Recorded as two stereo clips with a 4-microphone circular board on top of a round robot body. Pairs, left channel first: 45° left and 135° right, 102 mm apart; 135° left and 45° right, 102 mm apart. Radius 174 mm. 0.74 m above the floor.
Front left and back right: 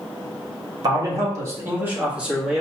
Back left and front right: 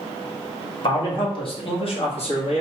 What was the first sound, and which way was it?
A man speaking, 175° left.